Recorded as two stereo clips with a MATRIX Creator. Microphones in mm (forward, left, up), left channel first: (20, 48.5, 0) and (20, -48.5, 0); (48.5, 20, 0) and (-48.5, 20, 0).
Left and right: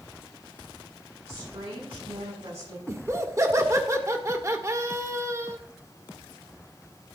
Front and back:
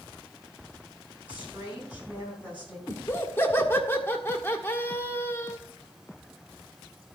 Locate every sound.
1.3 s a woman speaking: 105° right, 7.5 m
2.9 s laughter: 55° right, 1.6 m